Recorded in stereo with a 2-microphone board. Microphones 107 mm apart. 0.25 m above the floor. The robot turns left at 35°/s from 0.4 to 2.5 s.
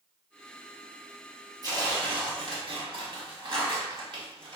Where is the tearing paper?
55° right, 1.1 m; by 4.6 s 85° right, 1.1 m.